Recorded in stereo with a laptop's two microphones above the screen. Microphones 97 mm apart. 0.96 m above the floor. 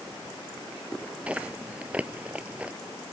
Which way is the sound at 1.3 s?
15° right (ahead or behind).